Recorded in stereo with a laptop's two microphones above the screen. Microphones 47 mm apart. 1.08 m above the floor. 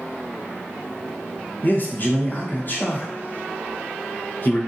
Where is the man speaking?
40° left (ahead or behind), 1.0 m.